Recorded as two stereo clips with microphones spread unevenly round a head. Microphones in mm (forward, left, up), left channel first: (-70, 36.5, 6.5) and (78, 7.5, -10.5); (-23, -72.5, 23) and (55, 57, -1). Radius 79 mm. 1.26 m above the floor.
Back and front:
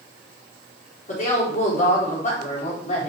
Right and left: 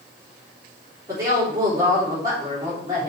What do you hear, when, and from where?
1.1 s a woman speaking: 130° left, 3.5 m